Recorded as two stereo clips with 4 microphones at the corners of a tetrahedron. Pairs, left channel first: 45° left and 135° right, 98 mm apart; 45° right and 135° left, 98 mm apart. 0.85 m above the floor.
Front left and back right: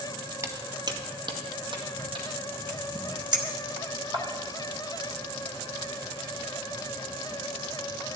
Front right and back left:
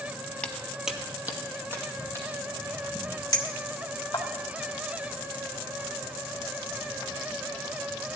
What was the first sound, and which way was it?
Footsteps, 115° right.